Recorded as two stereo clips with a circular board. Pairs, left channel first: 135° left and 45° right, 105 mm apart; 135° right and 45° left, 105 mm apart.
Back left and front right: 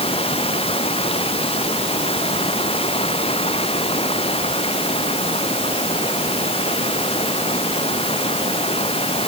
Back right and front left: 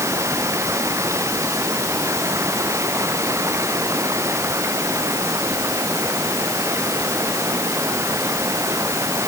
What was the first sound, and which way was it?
Running water, 110° left.